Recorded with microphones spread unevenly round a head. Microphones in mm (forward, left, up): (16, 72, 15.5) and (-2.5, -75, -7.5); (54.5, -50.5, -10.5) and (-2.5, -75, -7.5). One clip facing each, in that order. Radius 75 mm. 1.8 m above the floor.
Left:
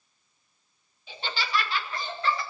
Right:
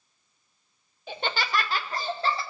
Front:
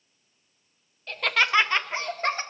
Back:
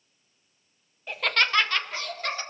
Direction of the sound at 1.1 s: 95° right.